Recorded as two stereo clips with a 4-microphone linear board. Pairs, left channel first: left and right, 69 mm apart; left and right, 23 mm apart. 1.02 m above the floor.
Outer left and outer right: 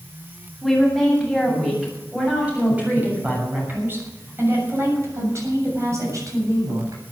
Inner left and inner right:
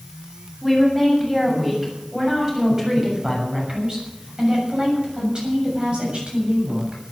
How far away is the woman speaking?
About 8 m.